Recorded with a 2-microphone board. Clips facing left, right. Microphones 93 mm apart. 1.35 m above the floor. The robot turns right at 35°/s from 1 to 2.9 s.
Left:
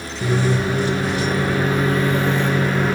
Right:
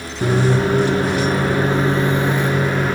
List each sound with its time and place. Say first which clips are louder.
0.2 s a microwave: right 3 dB; 70° right, 0.6 m; by 3.0 s straight ahead, 0.6 m